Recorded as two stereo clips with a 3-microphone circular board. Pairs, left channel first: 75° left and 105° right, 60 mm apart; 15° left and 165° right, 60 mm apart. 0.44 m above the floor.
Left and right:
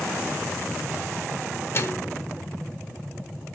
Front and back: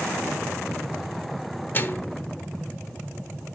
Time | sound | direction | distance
1.7 | a microwave | 50° left | 0.8 m